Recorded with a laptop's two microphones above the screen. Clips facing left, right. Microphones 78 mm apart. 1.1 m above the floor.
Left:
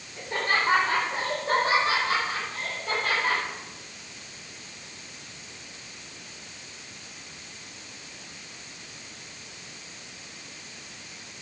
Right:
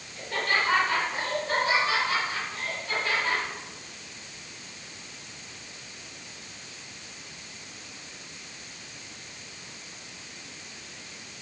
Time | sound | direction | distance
0.2 | laughter | 20° left (ahead or behind) | 4 m